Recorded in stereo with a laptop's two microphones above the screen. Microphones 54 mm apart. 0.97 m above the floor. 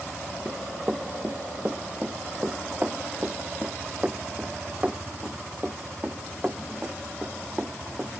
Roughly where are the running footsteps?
Right.